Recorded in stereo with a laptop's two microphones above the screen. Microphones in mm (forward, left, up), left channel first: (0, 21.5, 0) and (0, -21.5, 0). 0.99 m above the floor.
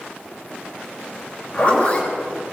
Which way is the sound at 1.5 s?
30° left (ahead or behind).